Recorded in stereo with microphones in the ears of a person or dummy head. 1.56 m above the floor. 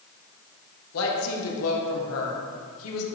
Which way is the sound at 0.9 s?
80° left.